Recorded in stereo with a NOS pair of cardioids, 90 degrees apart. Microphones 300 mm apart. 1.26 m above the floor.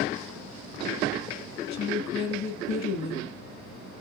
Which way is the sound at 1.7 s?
65° left.